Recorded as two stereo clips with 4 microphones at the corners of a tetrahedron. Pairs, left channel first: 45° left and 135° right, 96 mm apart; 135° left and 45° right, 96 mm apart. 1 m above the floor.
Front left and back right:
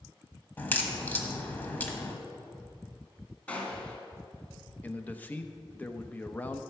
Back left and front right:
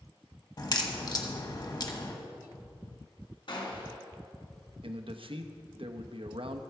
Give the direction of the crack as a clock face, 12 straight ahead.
8 o'clock.